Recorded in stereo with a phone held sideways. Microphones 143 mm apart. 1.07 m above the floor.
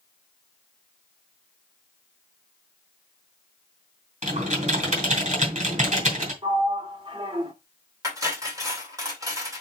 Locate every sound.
4.2 s typing on a keyboard: 50° right (ahead or behind), 3 m
6.4 s a sliding door: 30° right (ahead or behind), 1.3 m
8.0 s cutlery clinking: 20° right (ahead or behind), 2 m